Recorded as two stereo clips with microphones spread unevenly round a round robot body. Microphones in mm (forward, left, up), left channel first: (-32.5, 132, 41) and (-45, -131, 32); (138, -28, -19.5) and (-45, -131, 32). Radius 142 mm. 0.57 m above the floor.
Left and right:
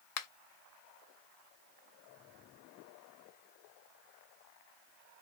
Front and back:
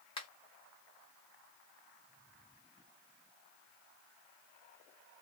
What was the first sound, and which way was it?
A finger snap, 85° left.